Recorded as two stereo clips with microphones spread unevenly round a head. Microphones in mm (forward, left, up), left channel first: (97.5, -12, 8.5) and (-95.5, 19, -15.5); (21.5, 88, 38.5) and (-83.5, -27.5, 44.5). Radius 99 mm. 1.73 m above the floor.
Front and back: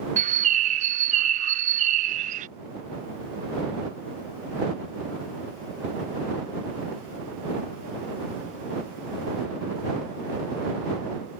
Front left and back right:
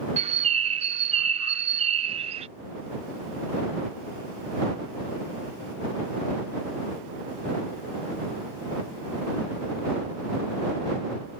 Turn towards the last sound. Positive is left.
turn(degrees=-150)